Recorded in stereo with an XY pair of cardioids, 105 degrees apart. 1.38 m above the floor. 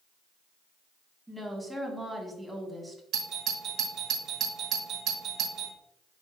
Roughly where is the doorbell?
Ahead right.